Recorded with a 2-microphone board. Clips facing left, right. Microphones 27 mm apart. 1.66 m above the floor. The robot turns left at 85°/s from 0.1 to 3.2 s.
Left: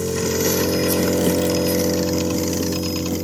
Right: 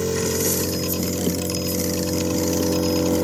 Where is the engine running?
175° right; by 3.2 s 75° right.